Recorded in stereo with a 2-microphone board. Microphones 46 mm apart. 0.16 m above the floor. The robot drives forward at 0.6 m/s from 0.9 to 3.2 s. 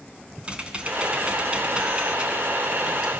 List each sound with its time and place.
0.4 s typing on a keyboard: 25° right (ahead or behind), 1.4 m; by 3.1 s 20° right (ahead or behind), 1.8 m